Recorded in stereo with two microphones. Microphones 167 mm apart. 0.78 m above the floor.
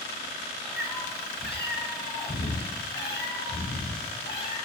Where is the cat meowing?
65° left (ahead or behind), 4.5 m; by 4.5 s 85° left, 8 m.